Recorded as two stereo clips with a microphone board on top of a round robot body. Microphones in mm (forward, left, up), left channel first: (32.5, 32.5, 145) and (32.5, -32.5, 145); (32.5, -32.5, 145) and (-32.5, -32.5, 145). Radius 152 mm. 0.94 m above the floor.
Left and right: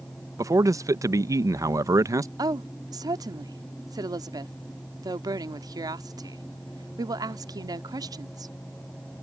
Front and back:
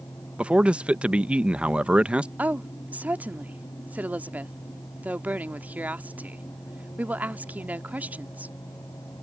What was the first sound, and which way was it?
A man speaking, 110° right.